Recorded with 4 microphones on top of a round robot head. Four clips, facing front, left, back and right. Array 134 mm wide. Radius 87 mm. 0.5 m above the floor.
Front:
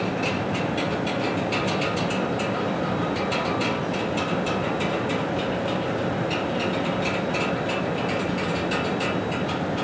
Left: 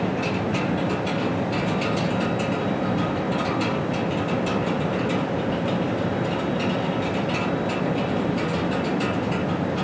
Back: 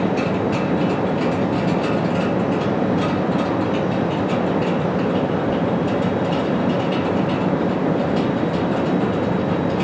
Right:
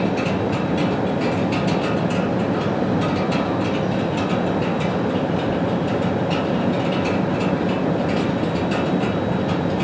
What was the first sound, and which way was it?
Only background noise.